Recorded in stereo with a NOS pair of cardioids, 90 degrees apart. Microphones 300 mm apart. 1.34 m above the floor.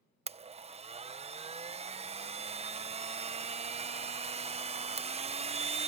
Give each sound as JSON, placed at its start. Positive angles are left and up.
{"t": 0.3, "sound": "a blender", "azimuth_deg": -20}